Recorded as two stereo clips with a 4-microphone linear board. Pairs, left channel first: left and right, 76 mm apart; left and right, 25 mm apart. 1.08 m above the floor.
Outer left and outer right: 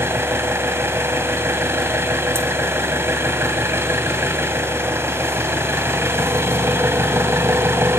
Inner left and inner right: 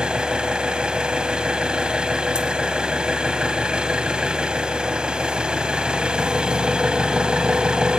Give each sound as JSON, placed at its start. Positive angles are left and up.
{"t": 0.0, "sound": "an engine running", "side_deg": -35, "distance_m": 1.5}